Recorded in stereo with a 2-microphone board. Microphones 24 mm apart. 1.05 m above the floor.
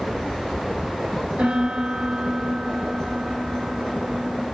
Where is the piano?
60° right (ahead or behind), 4.5 m.